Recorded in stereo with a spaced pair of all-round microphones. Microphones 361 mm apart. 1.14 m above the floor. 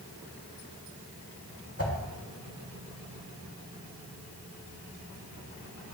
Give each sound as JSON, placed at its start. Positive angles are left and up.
{"t": 1.8, "sound": "a whoosh", "side_deg": 40, "distance_m": 1.9}